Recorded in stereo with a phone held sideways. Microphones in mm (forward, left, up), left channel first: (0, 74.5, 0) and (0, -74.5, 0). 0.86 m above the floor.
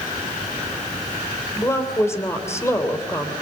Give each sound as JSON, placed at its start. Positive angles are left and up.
{"t": 1.6, "sound": "a woman speaking", "side_deg": 20, "distance_m": 3.0}